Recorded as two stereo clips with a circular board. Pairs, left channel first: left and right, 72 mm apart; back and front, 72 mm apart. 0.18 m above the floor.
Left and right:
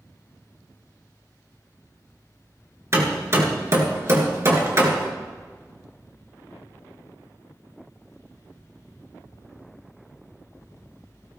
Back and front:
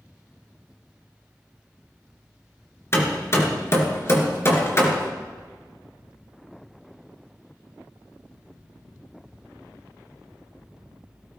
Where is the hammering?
135° right, 2.5 m.